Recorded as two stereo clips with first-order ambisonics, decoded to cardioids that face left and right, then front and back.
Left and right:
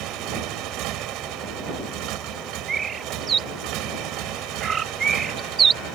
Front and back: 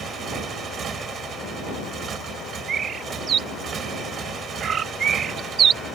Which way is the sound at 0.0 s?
120° right.